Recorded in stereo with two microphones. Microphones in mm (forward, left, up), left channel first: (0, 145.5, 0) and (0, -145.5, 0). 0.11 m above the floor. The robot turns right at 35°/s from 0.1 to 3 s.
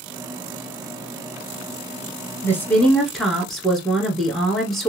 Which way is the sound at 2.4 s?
10° left (ahead or behind).